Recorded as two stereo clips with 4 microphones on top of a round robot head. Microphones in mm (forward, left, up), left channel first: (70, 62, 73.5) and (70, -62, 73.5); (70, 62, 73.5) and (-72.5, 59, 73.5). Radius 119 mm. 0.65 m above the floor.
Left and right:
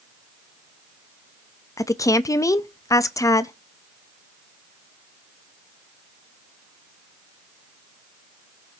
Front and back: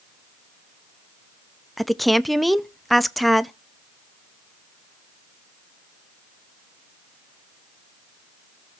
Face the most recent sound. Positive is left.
turn(degrees=90)